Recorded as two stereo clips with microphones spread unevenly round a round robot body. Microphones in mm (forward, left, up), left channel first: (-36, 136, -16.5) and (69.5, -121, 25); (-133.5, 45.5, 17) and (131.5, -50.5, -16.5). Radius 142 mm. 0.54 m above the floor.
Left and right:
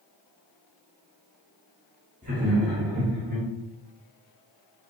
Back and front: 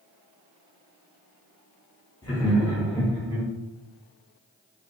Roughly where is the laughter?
Behind right.